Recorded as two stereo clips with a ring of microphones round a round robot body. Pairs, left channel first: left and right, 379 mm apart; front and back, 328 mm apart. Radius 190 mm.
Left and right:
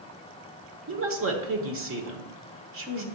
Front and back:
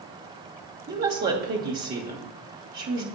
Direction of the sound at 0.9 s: 130° right.